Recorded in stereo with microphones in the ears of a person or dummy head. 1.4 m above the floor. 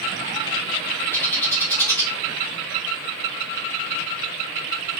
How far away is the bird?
About 1.1 m.